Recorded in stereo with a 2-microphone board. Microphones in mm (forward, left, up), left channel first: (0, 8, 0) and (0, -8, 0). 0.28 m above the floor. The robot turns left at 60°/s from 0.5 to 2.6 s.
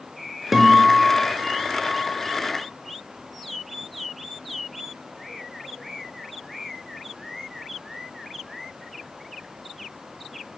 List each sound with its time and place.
0.5 s a guitar: 10° right, 0.5 m; by 2.4 s 120° right, 0.5 m